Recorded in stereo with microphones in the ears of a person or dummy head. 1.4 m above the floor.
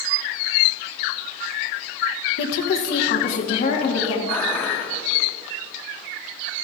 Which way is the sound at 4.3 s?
5° left (ahead or behind).